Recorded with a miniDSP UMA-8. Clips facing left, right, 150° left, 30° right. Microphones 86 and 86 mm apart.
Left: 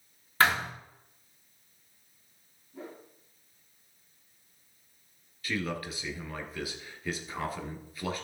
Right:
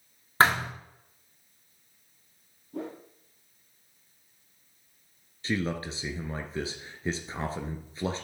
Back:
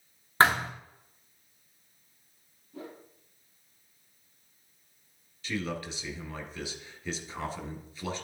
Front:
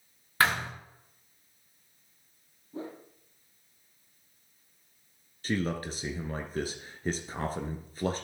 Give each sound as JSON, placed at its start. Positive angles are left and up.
{"t": 0.4, "sound": "a thud", "azimuth_deg": -150, "distance_m": 2.5}
{"t": 2.7, "sound": "a whoosh", "azimuth_deg": -90, "distance_m": 1.8}
{"t": 5.4, "sound": "a man speaking", "azimuth_deg": -40, "distance_m": 1.7}